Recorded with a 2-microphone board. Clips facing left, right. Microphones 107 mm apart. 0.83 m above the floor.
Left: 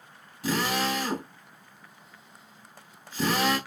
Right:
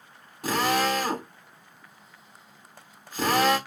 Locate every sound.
0.4 s a drill: 45° right (ahead or behind), 2 m